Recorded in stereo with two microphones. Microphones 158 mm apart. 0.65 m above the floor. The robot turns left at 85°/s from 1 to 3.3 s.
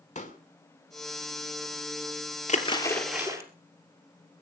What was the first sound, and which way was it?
A pop, 50° left (ahead or behind).